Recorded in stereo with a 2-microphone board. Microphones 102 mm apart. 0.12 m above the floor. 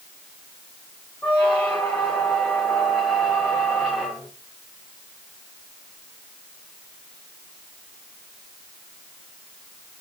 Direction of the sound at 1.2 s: 15° left (ahead or behind).